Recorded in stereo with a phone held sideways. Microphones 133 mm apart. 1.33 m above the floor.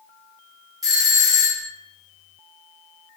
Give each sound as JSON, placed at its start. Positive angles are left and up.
{"t": 0.8, "sound": "a doorbell", "side_deg": -30, "distance_m": 1.1}